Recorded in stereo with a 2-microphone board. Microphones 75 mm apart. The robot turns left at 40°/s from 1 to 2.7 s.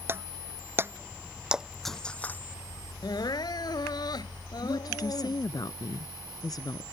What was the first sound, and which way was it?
Breaking glass, 30° right (ahead or behind).